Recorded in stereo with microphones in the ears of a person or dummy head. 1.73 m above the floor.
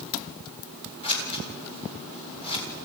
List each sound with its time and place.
1.0 s scissors: 30° left (ahead or behind), 5.5 m